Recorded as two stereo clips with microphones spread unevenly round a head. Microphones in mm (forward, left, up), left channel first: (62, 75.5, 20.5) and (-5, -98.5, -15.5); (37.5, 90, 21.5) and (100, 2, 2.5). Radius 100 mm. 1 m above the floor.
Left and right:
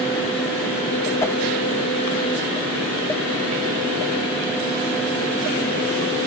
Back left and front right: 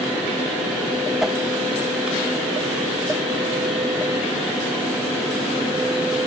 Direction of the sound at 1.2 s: 15° right.